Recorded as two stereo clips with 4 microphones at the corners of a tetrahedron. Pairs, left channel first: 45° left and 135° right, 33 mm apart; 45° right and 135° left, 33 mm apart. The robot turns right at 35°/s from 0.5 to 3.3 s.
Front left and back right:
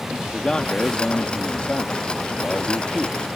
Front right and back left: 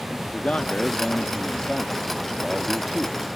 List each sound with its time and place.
0.3 s a man speaking: 20° right; by 3.3 s 75° left